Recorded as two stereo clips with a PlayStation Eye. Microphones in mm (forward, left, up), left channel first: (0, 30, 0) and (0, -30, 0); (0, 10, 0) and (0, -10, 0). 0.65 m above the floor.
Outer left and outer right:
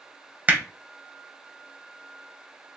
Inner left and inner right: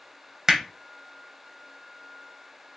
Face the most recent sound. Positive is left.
turn(degrees=-25)  # may be behind; listen again after turning